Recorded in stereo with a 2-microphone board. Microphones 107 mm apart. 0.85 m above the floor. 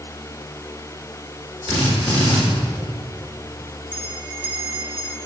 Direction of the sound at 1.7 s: 65° right (ahead or behind).